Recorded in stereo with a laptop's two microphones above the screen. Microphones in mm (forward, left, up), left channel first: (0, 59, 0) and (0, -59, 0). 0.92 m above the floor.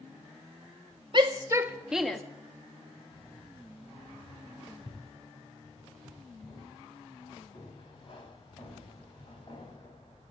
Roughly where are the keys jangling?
Left.